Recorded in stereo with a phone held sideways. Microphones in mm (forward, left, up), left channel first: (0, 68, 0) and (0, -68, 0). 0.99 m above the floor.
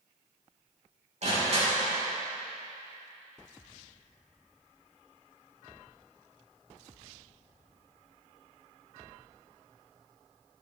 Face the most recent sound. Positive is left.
turn(degrees=-55)  # may be behind; listen again after turning